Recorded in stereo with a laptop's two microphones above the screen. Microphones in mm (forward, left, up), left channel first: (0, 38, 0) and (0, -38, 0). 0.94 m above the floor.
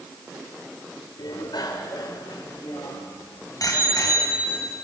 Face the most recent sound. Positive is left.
turn(degrees=50)  # may be behind; listen again after turning